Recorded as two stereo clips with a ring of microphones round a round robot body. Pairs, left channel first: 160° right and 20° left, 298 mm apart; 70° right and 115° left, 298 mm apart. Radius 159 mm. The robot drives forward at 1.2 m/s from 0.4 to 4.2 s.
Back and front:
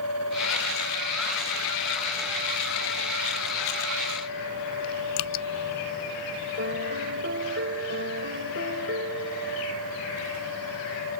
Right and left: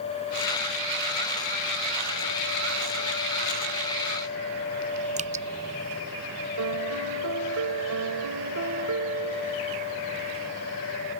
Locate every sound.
5.2 s dripping: straight behind
6.6 s a piano: 75° left